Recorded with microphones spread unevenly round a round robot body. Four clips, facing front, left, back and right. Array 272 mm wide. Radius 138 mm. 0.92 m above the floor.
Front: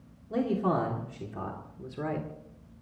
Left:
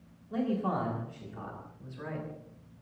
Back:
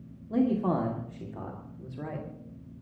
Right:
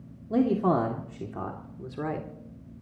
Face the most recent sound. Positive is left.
turn(degrees=-60)